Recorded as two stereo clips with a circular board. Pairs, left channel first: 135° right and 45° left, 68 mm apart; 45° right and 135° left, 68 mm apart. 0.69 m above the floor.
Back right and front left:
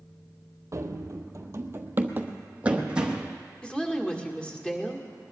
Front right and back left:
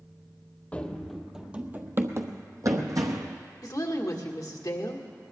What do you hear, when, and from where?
0.7 s running footsteps: 20° left, 1.0 m; by 3.4 s 125° left, 1.8 m
3.6 s a woman speaking: 60° right, 1.8 m